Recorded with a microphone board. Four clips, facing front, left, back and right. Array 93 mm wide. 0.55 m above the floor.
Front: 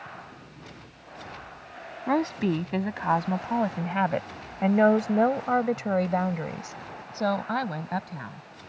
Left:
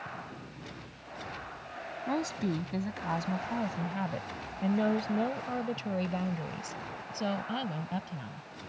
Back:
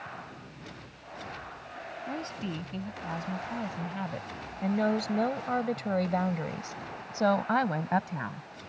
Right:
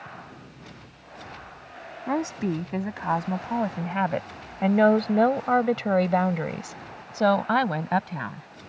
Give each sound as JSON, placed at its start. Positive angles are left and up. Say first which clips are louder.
{"t": 2.1, "sound": "a woman speaking", "louder": "right 6 dB, front 13 dB", "azimuth_deg": -25}